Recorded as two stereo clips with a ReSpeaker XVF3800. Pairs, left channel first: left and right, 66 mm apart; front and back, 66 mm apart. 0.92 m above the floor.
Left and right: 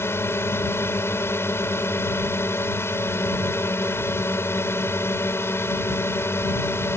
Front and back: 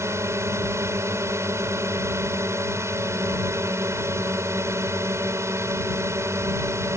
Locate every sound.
0.0 s a drone: 140° left